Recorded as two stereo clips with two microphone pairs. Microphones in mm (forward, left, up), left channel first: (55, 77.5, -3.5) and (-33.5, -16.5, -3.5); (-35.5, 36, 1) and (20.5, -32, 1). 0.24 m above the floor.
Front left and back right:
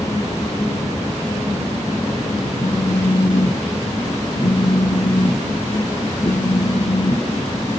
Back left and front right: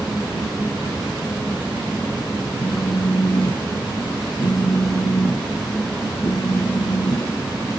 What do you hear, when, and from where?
2.6 s a phone buzzing: 95° left, 3 m